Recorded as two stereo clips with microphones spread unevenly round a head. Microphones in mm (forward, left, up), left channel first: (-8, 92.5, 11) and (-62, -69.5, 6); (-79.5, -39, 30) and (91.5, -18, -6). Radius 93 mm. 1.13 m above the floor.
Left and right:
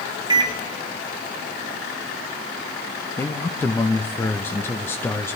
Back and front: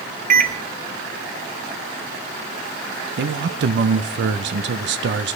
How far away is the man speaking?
About 0.5 m.